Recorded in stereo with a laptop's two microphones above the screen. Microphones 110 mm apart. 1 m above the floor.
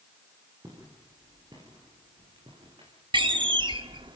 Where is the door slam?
50° right (ahead or behind), 1.2 m.